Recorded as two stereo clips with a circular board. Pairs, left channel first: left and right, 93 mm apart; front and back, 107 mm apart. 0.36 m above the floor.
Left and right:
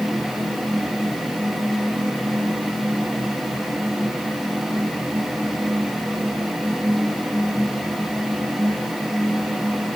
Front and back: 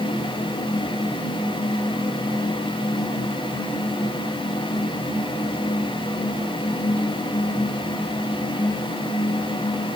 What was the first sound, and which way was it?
Only background noise.